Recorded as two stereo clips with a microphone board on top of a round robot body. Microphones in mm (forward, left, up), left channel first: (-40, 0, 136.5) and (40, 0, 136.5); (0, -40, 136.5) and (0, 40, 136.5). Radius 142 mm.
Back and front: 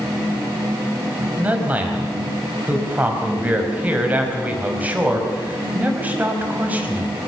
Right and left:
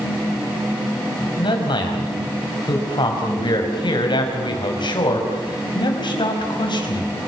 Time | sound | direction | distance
1.4 | a man speaking | 70° right | 5 m